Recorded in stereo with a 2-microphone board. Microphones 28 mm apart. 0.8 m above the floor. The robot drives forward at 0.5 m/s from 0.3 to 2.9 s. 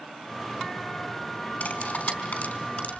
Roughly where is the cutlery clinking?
Left.